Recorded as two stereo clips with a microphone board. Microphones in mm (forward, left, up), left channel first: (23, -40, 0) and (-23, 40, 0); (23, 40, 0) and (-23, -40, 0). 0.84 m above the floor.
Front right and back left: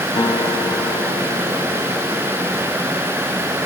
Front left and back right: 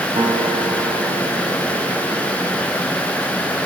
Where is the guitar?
90° right, 1.4 m.